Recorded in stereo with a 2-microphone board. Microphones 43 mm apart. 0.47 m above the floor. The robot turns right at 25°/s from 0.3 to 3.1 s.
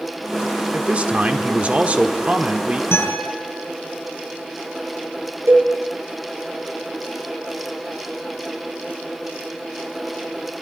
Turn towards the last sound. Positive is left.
turn(degrees=-80)